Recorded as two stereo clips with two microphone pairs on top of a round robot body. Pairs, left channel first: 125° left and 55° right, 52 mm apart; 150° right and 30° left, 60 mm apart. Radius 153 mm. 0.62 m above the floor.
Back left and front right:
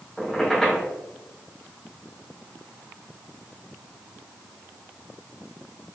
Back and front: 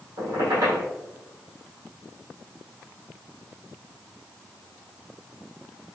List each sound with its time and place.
0.2 s a squeak: 40° left, 0.9 m